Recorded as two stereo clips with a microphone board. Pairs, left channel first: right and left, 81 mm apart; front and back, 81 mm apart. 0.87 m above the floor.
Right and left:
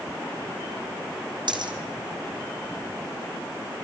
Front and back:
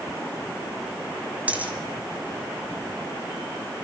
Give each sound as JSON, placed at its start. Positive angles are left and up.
{"t": 1.5, "sound": "a dropped coin", "azimuth_deg": 110, "distance_m": 3.0}